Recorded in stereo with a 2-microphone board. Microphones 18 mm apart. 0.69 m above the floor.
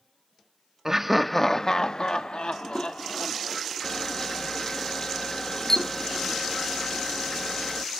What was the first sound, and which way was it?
Laughter, 25° right (ahead or behind).